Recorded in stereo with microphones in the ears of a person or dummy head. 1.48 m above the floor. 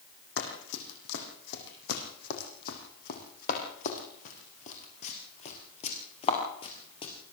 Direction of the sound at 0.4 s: 70° left (ahead or behind).